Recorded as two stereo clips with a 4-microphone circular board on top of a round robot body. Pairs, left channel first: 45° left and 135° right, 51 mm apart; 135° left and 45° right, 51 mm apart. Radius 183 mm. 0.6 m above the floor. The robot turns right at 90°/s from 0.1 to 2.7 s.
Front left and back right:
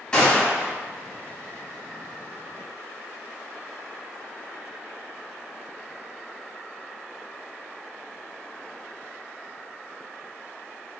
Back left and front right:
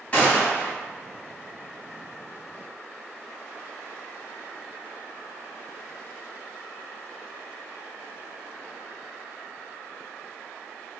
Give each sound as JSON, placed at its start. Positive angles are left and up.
{"t": 0.1, "sound": "a gunshot", "azimuth_deg": 100, "distance_m": 1.3}